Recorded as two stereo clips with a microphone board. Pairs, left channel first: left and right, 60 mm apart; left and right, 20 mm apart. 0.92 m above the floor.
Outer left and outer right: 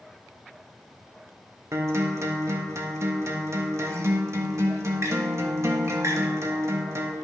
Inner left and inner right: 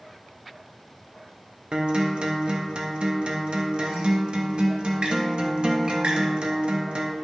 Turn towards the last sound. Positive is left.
turn(degrees=-55)  # may be behind; listen again after turning